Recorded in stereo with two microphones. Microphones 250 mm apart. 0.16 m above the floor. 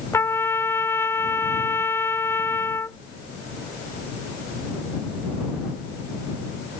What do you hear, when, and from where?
0.1 s a trumpet: 10° left (ahead or behind)